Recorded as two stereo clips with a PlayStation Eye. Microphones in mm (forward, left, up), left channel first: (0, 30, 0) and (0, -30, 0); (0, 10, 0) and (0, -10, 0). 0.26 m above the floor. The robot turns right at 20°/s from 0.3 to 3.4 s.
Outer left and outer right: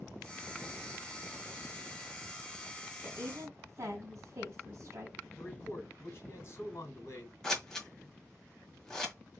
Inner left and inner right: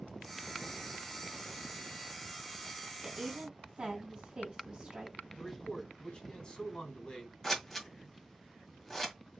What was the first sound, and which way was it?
A woman speaking, 50° right (ahead or behind).